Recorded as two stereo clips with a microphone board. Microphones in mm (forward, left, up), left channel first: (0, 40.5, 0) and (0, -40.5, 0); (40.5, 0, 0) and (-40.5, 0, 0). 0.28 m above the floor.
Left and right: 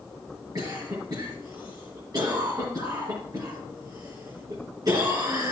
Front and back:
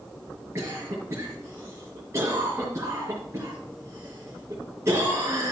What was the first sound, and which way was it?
A cough, 125° right.